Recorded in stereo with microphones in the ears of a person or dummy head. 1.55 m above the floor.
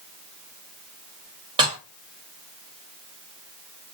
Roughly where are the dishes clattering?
Right.